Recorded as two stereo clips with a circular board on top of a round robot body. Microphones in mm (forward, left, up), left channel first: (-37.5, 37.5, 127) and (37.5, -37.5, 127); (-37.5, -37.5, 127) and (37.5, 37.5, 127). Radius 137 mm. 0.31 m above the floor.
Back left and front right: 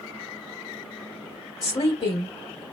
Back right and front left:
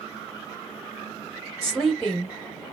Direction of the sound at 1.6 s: 145° left.